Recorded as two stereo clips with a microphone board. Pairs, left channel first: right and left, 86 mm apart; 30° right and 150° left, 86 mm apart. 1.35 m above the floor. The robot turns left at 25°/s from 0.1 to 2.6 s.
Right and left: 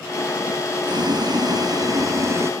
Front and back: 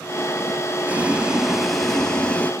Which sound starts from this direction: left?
Boiling, at 0.8 s.